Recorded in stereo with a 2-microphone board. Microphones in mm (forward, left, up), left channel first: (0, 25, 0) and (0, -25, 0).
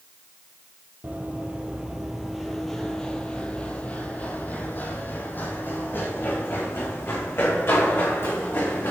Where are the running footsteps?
35° right (ahead or behind), 1.2 m; by 8.9 s 50° left (ahead or behind), 3.5 m.